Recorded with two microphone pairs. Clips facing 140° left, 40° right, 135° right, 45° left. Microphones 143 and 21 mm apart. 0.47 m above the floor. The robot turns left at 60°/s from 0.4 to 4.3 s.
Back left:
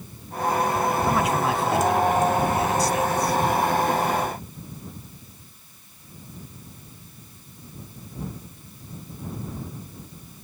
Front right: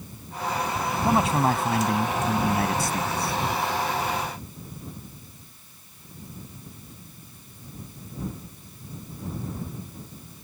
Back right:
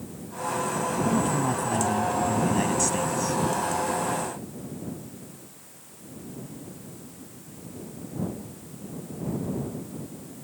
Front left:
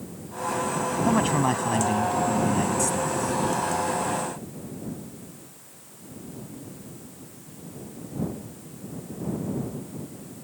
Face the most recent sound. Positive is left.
turn(degrees=-165)